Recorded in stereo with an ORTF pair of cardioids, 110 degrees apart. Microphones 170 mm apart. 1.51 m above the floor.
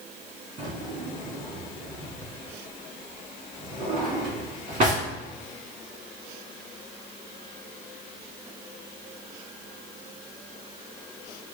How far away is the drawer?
About 2.0 m.